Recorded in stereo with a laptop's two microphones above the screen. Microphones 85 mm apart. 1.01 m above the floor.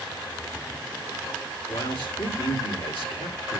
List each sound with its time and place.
1.7 s a man speaking: 75° left (ahead or behind), 2.5 m